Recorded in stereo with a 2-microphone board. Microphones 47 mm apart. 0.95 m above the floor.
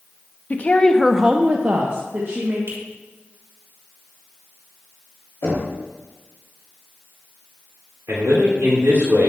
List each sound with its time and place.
0.5 s a woman speaking: 35° left (ahead or behind), 0.8 m; by 2.6 s 55° right (ahead or behind), 1.4 m
2.7 s a finger snap: 80° right, 3.5 m
5.4 s knocking: 70° left (ahead or behind), 2.5 m
8.1 s a man speaking: 75° right (ahead or behind), 2.5 m